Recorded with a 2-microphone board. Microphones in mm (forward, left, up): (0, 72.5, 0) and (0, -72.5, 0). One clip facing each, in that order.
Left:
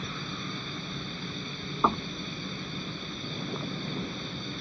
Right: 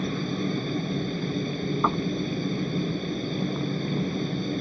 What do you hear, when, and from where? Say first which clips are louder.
0.0 s a helicopter: right 11 dB; 45° right (ahead or behind)
1.8 s knocking: even; 5° left (ahead or behind)